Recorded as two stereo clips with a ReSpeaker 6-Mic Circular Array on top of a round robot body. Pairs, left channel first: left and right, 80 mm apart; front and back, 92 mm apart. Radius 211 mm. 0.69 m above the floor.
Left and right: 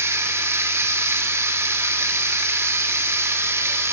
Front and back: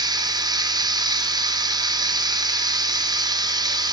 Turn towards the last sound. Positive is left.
turn(degrees=-145)